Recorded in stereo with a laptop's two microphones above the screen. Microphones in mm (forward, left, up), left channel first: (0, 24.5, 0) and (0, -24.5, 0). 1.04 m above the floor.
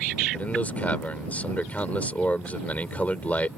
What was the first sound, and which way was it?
A man speaking, 35° left (ahead or behind).